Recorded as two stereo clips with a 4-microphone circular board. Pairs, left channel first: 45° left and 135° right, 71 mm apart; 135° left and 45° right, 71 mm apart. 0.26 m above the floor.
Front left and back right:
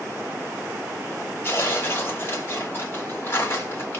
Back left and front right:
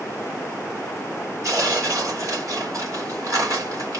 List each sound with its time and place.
1.4 s tearing paper: 10° right, 3 m